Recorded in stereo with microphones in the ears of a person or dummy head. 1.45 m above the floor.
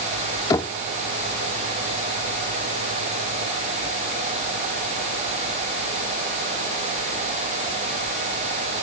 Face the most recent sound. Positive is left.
turn(degrees=20)  # may be behind; listen again after turning